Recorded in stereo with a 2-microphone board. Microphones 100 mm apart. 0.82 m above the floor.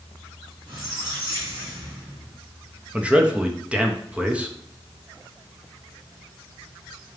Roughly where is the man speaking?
Centre.